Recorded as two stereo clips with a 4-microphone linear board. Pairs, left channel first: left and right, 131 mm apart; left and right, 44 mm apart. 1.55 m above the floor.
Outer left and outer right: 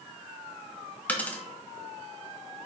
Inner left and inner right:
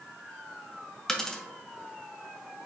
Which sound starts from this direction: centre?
A dropped coin, at 1.1 s.